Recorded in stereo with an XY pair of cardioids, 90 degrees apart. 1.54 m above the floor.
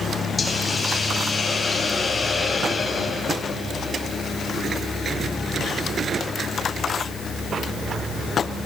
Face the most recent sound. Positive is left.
turn(degrees=25)